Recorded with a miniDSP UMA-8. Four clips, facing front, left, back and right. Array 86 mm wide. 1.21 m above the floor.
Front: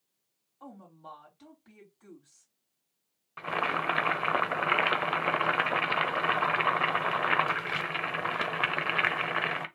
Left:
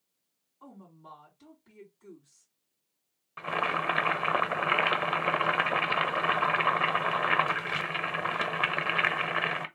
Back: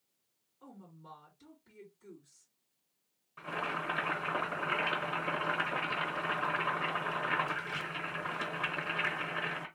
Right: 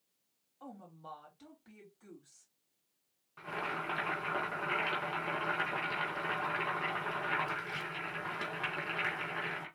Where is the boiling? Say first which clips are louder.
Left 9 dB, front 6 dB; 45° left, 0.7 m.